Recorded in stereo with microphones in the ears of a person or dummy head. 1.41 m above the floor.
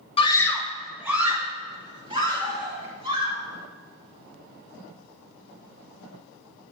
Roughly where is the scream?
Left.